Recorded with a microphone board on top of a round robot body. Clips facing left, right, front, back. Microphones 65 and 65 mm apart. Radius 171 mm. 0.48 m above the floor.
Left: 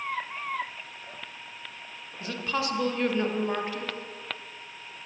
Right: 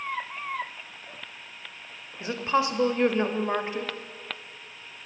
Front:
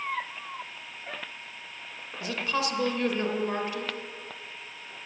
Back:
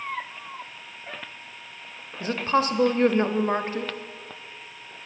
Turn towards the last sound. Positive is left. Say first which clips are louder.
# right 5 dB, back 6 dB
turn(degrees=-150)